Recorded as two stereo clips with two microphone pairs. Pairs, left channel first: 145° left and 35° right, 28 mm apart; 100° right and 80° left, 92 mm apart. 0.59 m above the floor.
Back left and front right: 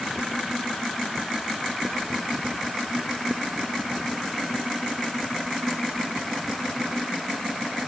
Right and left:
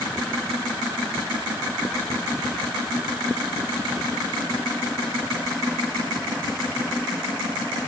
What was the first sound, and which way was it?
Only background noise.